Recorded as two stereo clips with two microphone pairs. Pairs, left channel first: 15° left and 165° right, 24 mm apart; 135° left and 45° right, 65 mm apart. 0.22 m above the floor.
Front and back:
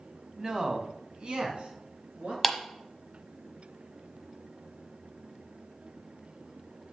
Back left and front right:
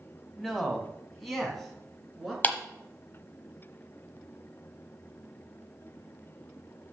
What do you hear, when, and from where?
0.4 s a man speaking: 145° right, 1.5 m; by 2.3 s 135° right, 3.5 m
2.4 s a clap: 105° left, 1.1 m